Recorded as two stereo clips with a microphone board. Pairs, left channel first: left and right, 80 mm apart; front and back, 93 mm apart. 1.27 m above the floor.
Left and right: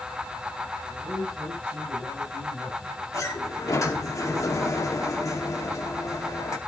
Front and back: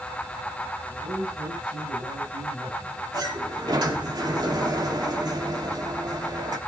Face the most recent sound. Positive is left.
turn(degrees=140)